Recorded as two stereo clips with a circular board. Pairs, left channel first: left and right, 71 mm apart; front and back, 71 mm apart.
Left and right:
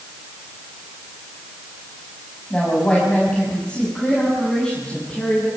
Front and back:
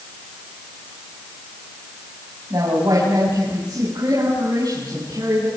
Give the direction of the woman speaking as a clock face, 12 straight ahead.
7 o'clock.